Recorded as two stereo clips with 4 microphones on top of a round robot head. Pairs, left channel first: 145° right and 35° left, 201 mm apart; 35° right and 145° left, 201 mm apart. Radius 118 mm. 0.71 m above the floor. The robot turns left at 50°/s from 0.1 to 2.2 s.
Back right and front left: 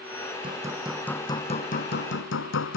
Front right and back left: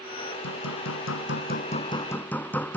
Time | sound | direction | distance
0.4 | hammering | 30° right | ?